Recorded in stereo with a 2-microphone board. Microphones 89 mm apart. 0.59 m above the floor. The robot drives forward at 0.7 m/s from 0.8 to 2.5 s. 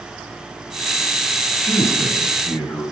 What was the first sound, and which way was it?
A man speaking, 25° left (ahead or behind).